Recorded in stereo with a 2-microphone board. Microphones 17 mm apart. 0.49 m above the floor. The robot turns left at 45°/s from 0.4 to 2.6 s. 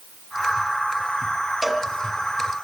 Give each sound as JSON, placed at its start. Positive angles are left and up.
{"t": 1.6, "sound": "a cowbell", "side_deg": -10, "distance_m": 2.5}